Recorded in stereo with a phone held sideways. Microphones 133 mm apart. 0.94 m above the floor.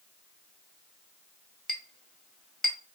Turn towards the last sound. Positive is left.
turn(degrees=5)  # may be behind; listen again after turning